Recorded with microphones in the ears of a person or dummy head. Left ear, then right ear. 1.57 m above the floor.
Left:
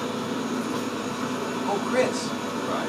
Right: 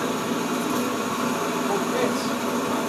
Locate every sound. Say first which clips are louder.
0.0 s an engine running: right 4 dB; 20° right (ahead or behind), 0.8 m
1.6 s a man speaking: left 3 dB; 65° left (ahead or behind), 1.4 m